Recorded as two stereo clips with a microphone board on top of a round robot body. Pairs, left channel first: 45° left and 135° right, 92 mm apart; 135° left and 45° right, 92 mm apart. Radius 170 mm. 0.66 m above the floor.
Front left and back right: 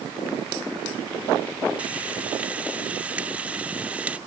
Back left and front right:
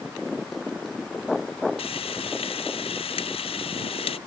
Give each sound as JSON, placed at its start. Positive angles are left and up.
{"t": 1.8, "sound": "frying", "azimuth_deg": 150}